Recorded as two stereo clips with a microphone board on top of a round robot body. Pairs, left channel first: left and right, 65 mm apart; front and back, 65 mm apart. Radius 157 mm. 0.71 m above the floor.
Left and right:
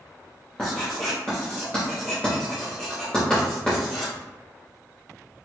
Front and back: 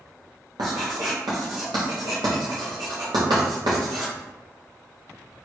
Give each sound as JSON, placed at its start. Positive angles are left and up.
{"t": 0.6, "sound": "writing", "azimuth_deg": 170, "distance_m": 0.5}